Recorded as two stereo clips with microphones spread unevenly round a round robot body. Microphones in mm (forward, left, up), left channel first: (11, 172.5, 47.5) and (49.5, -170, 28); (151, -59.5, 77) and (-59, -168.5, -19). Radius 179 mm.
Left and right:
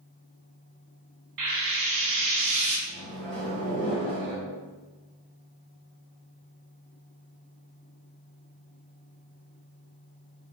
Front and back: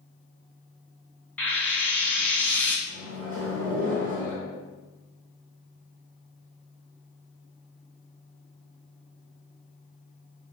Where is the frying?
50° right, 1.2 m.